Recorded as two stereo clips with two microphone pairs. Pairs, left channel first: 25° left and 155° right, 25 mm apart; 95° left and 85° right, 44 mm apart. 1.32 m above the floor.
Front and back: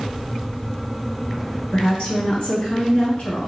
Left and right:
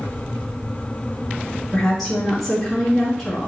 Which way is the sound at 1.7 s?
5° left.